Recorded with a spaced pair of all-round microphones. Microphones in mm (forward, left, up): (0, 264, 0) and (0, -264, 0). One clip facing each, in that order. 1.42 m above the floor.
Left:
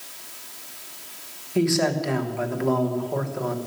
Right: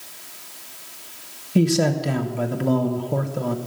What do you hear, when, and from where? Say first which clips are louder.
1.6 s a man speaking: right 2 dB; 55° right (ahead or behind), 1.1 m